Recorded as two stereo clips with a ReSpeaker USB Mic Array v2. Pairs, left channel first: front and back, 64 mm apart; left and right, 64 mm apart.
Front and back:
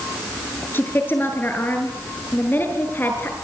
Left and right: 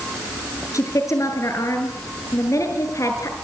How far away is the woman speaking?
About 7 m.